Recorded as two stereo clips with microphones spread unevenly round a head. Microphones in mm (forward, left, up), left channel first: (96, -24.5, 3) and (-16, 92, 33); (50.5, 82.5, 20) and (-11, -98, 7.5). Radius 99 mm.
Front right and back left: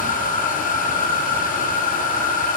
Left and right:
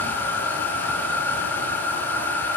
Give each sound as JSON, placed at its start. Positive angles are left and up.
{"t": 0.0, "sound": "a machine running", "azimuth_deg": -10, "distance_m": 7.5}